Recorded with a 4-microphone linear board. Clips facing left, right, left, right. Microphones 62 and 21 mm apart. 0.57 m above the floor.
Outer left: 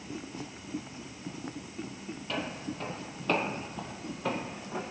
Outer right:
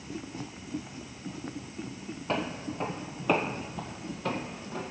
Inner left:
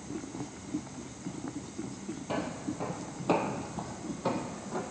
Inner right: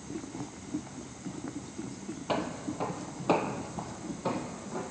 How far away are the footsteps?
About 1.1 m.